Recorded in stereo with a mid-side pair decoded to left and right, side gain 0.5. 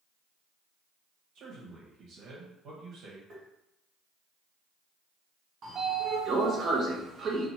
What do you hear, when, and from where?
1.4 s a man speaking: 65° right, 0.8 m
3.3 s tapping: 40° right, 1.3 m
5.6 s a sliding door: 50° right, 0.7 m